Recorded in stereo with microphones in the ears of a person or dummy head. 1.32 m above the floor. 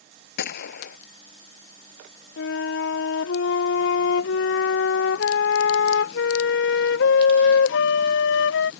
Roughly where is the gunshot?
Left.